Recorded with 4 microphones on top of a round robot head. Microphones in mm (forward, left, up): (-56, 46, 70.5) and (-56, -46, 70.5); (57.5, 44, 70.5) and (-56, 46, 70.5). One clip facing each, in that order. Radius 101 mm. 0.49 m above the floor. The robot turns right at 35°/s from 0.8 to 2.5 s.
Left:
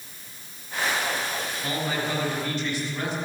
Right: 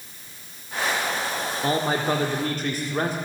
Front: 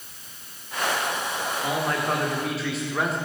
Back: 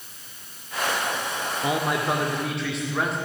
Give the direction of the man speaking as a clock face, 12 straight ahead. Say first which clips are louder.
Right 6 dB, back 2 dB; 4 o'clock.